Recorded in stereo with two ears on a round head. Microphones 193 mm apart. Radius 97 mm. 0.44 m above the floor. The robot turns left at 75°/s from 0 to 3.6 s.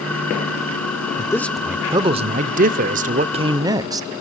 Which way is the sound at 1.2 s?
30° left.